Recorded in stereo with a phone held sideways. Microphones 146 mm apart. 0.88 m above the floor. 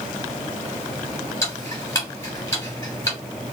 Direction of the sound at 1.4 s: 20° left (ahead or behind).